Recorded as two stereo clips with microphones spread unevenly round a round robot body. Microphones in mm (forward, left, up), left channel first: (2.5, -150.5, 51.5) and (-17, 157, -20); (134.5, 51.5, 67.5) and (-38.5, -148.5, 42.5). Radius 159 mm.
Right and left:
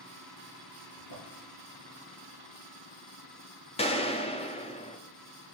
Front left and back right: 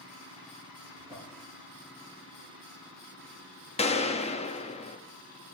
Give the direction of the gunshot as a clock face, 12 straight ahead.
12 o'clock.